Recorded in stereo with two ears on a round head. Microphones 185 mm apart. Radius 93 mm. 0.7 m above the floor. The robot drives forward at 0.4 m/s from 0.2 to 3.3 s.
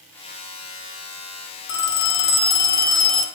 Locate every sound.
1.7 s a phone ringing: 65° left (ahead or behind), 0.8 m; by 3.2 s 40° left (ahead or behind), 1.2 m